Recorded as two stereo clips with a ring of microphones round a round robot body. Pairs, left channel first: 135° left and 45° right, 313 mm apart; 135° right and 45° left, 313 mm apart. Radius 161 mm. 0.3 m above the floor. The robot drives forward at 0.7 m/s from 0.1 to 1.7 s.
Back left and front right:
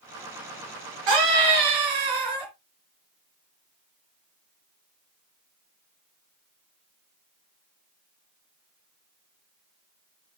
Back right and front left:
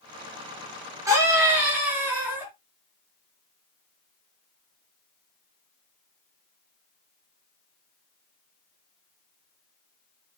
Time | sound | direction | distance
1.1 | a scream | 35° right | 4.5 m